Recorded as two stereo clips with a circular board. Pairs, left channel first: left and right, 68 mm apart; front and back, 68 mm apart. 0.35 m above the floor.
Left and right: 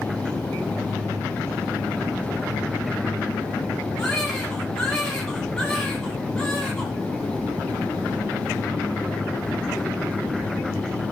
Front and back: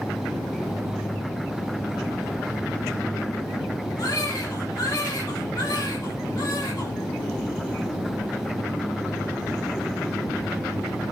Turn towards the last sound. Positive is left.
turn(degrees=10)